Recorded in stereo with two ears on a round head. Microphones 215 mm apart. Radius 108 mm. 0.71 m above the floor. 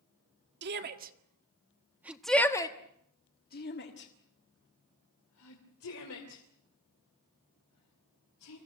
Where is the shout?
45° right (ahead or behind), 1.7 m; by 8.6 s 75° left (ahead or behind), 5 m.